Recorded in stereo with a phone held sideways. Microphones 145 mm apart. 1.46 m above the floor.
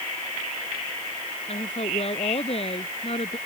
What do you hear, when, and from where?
1.5 s a woman speaking: 45° left (ahead or behind)